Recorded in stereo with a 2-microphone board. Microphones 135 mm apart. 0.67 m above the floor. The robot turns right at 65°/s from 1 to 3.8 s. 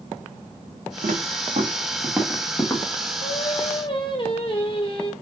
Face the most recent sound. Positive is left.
turn(degrees=135)